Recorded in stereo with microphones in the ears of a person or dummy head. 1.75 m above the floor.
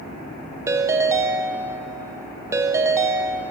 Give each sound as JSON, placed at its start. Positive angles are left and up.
{"t": 0.7, "sound": "a ringtone", "side_deg": -15, "distance_m": 1.4}